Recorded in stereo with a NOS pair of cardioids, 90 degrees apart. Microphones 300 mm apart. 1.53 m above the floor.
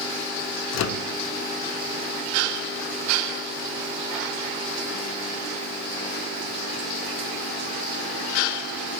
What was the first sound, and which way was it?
A microwave, 65° left.